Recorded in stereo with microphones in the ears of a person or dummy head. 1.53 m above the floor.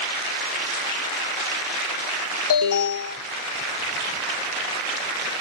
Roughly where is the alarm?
Left.